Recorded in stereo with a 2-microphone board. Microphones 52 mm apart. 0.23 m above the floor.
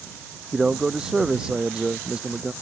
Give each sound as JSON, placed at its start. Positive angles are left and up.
{"t": 0.5, "sound": "a man speaking", "side_deg": -10}